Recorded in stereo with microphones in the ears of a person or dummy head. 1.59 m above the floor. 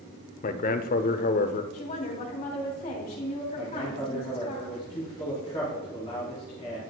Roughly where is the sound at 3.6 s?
Left.